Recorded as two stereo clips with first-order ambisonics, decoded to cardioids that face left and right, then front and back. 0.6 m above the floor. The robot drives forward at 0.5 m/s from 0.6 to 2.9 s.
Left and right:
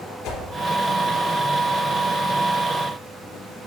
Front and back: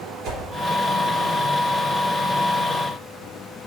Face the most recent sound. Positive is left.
turn(degrees=140)